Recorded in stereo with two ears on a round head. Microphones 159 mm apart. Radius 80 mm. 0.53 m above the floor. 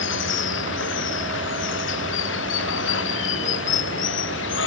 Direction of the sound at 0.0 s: 85° left.